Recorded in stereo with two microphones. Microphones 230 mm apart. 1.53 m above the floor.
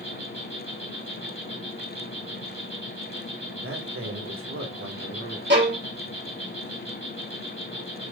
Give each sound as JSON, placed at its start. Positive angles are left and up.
{"t": 0.0, "sound": "an insect", "side_deg": 55, "distance_m": 2.5}
{"t": 3.6, "sound": "a man speaking", "side_deg": -65, "distance_m": 1.9}
{"t": 5.5, "sound": "a violin", "side_deg": -50, "distance_m": 1.9}